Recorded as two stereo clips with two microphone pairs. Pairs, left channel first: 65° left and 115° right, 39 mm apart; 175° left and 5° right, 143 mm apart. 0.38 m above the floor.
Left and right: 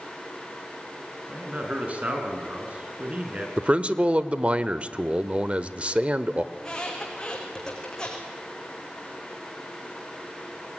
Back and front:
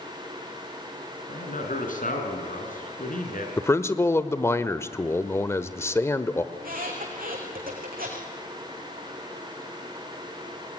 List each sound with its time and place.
1.3 s a man speaking: 170° right, 5 m
3.6 s a man speaking: 130° right, 1.0 m
6.5 s a squeak: 5° right, 5.5 m